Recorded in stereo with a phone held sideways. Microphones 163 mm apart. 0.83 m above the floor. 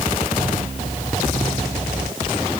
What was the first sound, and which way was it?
Only background noise.